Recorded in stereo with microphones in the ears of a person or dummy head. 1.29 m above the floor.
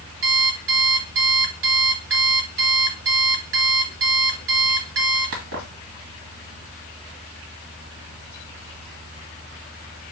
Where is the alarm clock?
65° right (ahead or behind), 1.2 m.